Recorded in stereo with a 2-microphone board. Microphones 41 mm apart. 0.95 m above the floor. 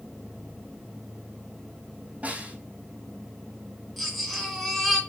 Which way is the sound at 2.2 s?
40° right (ahead or behind).